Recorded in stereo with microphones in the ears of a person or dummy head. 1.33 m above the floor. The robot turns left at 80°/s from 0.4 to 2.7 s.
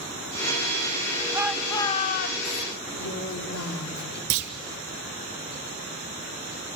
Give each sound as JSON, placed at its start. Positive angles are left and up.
{"t": 1.3, "sound": "a shout", "azimuth_deg": -165, "distance_m": 1.8}
{"t": 2.9, "sound": "a woman speaking", "side_deg": 90, "distance_m": 3.5}
{"t": 4.3, "sound": "a clunk", "side_deg": -50, "distance_m": 1.5}